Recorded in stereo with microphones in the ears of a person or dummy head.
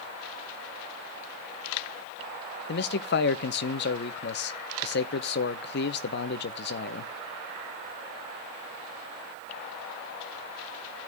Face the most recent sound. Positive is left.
turn(degrees=55)  # may be behind; listen again after turning